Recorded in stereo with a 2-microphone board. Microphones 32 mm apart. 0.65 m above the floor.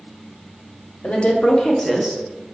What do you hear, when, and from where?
1.0 s a woman speaking: 45° left (ahead or behind), 0.8 m; by 2.2 s 20° right (ahead or behind), 0.6 m